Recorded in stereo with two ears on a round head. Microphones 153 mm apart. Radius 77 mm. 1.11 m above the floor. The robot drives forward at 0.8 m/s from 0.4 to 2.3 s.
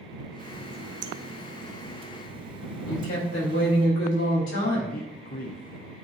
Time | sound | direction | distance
0.4 | a running tap | 50° right (ahead or behind) | 0.8 m
2.9 | a woman speaking | 85° left | 4.5 m
4.9 | a man speaking | 55° left (ahead or behind) | 0.7 m